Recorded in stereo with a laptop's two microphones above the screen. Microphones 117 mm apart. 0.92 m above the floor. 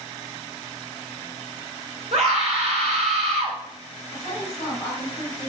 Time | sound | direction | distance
2.1 | a scream | 65° right (ahead or behind) | 2.5 m
4.1 | a woman speaking | 35° left (ahead or behind) | 3 m